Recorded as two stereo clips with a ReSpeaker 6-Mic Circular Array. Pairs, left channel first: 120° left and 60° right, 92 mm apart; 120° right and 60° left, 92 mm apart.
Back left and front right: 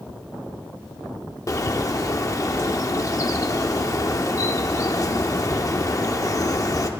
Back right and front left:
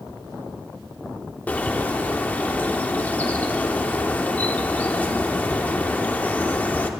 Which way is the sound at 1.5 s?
170° left.